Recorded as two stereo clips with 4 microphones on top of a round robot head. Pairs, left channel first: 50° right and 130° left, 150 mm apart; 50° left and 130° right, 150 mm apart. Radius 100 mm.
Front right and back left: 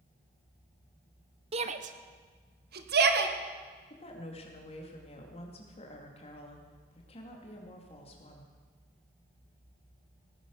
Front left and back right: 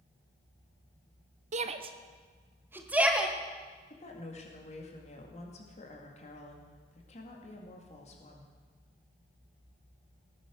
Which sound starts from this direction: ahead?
A woman speaking, at 3.9 s.